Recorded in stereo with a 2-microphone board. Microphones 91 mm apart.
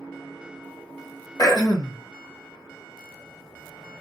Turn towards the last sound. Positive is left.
turn(degrees=35)  # may be behind; listen again after turning